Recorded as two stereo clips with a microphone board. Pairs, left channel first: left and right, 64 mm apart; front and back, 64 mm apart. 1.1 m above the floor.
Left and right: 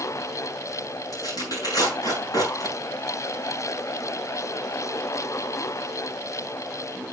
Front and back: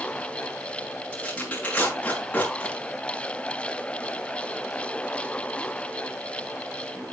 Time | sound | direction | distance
1.1 | tearing paper | 70° left | 6 m